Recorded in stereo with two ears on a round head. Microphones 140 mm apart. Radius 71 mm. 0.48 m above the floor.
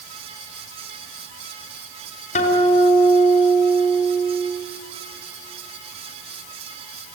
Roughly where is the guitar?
Left.